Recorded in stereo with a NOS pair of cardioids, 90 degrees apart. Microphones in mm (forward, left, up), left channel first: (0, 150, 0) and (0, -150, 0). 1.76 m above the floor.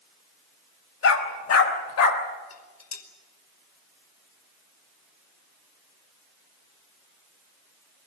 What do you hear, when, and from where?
1.0 s a dog barking: 60° left, 4.5 m; by 2.2 s 75° left, 3 m
2.5 s dishes clattering: 60° left, 5 m